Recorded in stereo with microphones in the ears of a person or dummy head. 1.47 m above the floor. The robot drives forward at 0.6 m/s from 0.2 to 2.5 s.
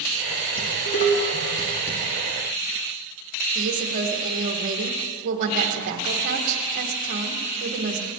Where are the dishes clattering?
50° left (ahead or behind), 1.8 m; by 2.0 s 35° left (ahead or behind), 2.5 m.